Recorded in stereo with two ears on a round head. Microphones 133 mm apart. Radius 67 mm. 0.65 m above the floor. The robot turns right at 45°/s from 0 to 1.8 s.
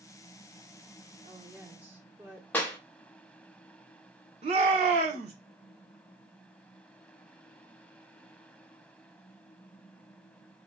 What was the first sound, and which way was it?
A woman speaking, 35° right (ahead or behind).